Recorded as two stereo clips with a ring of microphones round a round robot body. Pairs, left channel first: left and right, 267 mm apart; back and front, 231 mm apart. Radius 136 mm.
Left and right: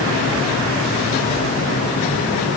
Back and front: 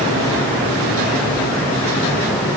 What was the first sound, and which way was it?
Only background noise.